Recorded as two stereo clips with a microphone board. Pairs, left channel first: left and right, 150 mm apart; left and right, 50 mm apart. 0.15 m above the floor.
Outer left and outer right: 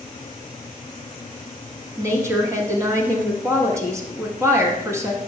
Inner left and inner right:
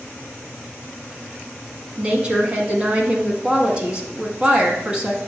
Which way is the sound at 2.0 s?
20° right (ahead or behind).